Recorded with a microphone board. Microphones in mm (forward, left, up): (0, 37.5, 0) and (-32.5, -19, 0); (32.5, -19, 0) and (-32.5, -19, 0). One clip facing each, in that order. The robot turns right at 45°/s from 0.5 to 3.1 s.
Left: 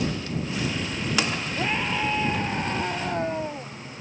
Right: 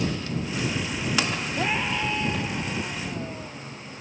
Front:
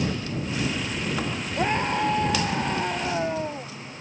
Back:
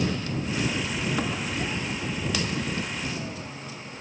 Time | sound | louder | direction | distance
1.6 | a scream | even, front 7 dB | 40° right | ?